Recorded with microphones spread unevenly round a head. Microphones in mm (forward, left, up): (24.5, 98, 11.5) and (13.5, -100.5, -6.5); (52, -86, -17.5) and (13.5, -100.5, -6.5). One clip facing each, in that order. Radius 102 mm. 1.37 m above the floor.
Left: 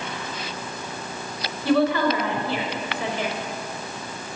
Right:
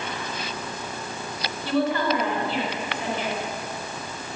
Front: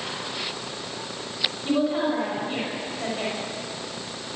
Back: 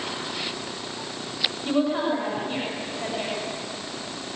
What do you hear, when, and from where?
1.6 s a woman speaking: 115° left, 5.5 m